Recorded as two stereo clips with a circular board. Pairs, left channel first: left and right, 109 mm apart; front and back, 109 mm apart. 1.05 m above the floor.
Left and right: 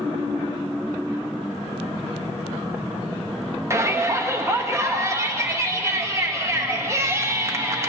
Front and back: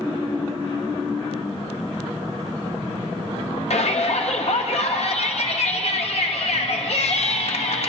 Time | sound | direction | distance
3.7 | a shout | 25° right | 1.2 m